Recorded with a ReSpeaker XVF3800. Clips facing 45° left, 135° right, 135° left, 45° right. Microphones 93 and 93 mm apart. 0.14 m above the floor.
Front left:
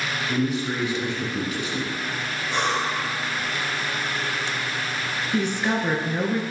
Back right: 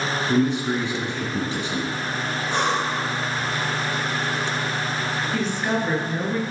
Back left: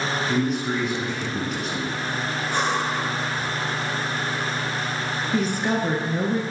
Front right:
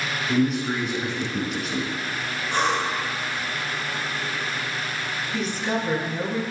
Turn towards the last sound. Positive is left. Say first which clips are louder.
# front left 2 dB, back left 3 dB
turn(degrees=115)